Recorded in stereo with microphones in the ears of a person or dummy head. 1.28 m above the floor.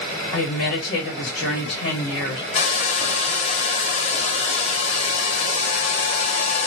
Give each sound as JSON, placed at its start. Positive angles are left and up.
{"t": 0.3, "sound": "a woman speaking", "side_deg": 60, "distance_m": 1.1}
{"t": 2.5, "sound": "a hair dryer", "side_deg": 40, "distance_m": 0.7}